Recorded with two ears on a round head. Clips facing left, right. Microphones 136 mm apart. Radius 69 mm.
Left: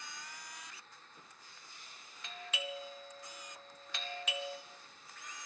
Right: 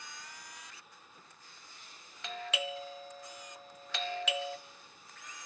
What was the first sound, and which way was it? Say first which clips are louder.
A doorbell: right 6 dB; 60° right (ahead or behind).